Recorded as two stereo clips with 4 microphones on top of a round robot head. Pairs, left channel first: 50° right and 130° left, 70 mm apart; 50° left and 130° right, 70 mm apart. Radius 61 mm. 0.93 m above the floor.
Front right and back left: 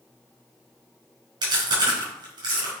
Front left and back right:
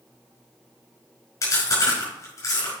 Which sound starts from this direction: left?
Chewing, at 1.4 s.